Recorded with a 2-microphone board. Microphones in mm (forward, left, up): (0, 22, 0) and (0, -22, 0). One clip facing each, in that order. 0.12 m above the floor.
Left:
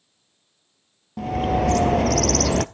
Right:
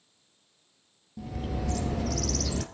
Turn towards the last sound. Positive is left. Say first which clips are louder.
# left 14 dB
turn(degrees=70)  # may be behind; listen again after turning